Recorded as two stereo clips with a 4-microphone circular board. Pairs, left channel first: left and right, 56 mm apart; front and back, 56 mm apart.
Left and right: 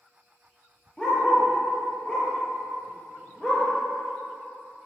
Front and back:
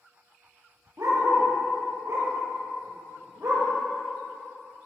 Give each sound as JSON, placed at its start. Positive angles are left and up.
{"t": 1.0, "sound": "a dog barking", "azimuth_deg": 160, "distance_m": 3.5}